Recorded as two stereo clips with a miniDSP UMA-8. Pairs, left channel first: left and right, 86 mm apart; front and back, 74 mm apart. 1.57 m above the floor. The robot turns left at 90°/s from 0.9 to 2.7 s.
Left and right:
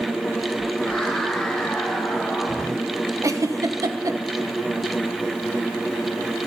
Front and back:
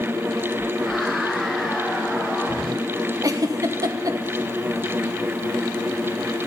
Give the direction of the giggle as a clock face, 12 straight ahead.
5 o'clock.